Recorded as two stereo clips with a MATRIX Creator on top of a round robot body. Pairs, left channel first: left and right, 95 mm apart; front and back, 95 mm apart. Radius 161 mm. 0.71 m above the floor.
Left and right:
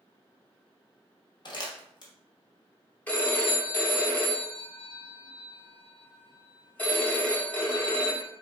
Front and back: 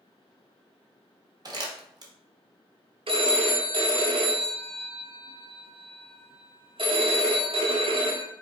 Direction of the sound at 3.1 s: 165° left.